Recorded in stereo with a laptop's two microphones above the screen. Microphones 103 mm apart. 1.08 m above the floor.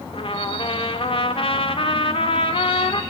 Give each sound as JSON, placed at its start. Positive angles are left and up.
{"t": 0.1, "sound": "a trumpet", "side_deg": 60, "distance_m": 1.6}